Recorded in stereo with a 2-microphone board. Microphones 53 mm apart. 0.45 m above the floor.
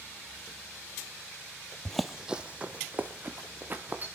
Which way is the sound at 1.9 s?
15° left (ahead or behind).